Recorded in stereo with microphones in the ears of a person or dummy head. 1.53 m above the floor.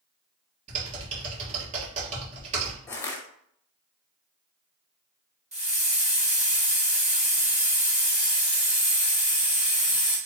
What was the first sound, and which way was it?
Typing on a keyboard, 35° right (ahead or behind).